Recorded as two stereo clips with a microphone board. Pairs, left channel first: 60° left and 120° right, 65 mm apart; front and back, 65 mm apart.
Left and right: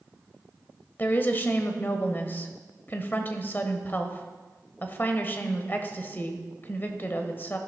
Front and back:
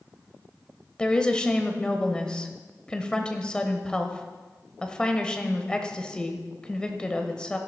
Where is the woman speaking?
60° left, 1.2 m.